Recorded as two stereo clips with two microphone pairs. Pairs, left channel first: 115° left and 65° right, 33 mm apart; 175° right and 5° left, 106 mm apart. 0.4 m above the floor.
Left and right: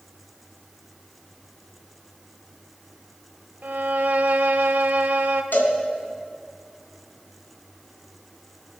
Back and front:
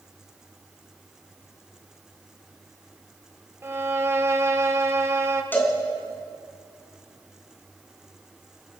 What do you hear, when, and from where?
3.6 s a violin: 55° right, 0.9 m
5.5 s a cowbell: 115° left, 2.5 m